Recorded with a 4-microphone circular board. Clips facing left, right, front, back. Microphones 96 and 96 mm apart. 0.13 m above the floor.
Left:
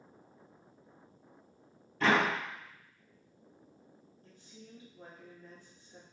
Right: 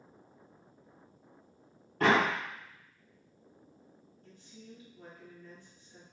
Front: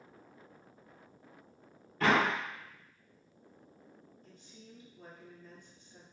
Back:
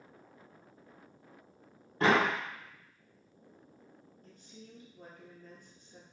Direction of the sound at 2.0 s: 125° right.